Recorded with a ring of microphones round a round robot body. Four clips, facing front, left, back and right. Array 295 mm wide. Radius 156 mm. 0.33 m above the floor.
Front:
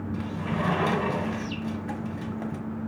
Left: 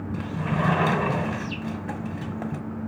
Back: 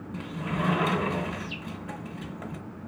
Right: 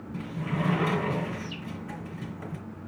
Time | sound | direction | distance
0.1 | a sliding door | 80° left | 1.5 m